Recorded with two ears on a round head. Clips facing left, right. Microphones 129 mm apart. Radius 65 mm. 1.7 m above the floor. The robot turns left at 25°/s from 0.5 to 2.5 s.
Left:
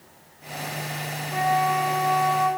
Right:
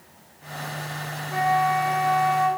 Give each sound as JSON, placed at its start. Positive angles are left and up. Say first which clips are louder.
{"t": 1.3, "sound": "a flute", "louder": "right 1 dB", "side_deg": -35, "distance_m": 1.4}